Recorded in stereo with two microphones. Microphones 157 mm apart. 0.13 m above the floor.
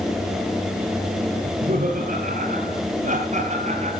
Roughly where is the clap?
No clap in this recording.